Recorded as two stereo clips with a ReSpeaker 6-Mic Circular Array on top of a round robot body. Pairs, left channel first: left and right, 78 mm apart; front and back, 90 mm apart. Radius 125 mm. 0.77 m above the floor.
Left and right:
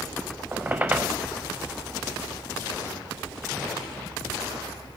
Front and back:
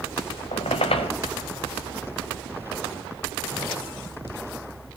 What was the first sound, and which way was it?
A squeak, 20° right.